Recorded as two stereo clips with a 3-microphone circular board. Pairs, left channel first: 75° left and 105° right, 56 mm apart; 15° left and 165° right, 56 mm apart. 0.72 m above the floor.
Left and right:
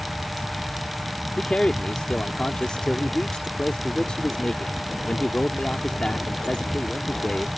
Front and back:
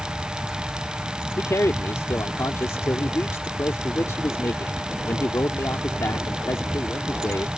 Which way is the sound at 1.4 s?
5° left.